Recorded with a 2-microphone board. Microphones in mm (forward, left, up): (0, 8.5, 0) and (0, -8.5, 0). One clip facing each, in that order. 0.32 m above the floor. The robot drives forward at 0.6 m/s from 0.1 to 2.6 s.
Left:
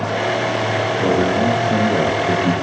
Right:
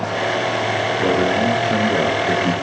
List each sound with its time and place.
0.9 s a man speaking: 35° right (ahead or behind), 5 m; by 2.5 s 30° right (ahead or behind), 6 m